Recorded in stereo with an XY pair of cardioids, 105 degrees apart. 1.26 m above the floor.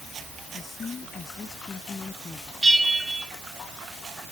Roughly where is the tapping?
No tapping in this recording.